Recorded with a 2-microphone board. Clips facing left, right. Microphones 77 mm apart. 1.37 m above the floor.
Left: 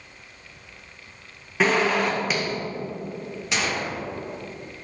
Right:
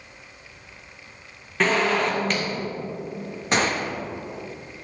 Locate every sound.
1.6 s a zipper: 5° left (ahead or behind), 1.5 m
3.5 s a gunshot: 40° right (ahead or behind), 0.9 m